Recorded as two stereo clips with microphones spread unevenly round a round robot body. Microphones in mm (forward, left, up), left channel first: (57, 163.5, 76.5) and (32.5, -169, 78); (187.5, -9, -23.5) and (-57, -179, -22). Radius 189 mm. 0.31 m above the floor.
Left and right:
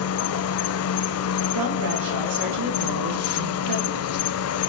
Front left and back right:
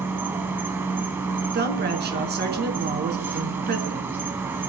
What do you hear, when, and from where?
0.0 s an insect: 130° left, 0.7 m
1.5 s a woman speaking: 90° right, 3.5 m